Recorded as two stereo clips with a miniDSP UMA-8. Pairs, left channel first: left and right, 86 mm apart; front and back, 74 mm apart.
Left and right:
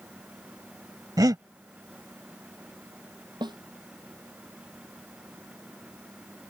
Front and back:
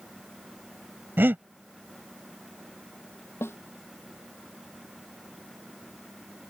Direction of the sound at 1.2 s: 125° right.